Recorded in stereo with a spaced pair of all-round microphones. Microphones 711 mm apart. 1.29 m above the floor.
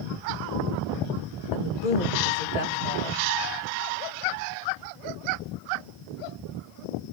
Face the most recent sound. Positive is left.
turn(degrees=75)  # may be behind; listen again after turning